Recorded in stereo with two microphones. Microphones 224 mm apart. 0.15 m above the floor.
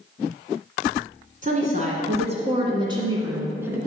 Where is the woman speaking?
35° right (ahead or behind), 1.8 m; by 3.8 s 10° right (ahead or behind), 2 m.